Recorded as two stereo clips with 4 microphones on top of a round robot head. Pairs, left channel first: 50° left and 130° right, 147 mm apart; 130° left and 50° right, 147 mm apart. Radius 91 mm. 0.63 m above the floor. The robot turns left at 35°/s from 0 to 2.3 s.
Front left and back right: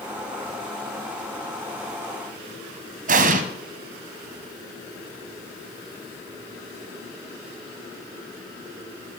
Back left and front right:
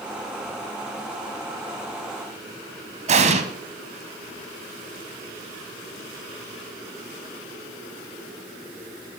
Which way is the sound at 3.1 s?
95° right.